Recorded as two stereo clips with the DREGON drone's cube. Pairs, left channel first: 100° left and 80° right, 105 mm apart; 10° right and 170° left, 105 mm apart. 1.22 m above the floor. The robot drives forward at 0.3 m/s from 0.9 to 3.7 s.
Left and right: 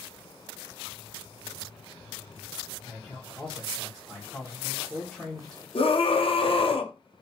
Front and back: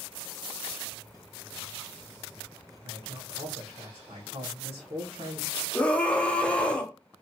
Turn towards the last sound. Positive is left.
turn(degrees=65)